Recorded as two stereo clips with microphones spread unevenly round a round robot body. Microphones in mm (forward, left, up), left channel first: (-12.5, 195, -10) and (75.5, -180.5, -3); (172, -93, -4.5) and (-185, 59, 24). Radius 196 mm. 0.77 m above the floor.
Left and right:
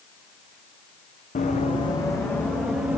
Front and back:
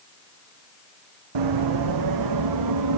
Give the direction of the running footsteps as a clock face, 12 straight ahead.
6 o'clock.